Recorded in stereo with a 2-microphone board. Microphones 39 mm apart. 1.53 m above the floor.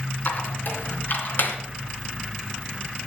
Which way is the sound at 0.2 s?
60° left (ahead or behind).